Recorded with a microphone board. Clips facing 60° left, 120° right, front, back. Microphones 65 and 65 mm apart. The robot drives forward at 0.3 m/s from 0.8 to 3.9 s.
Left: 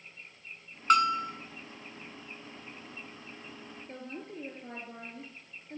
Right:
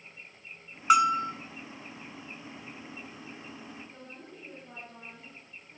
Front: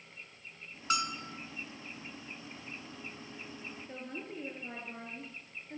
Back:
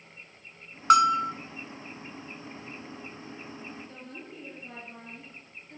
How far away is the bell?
About 0.6 m.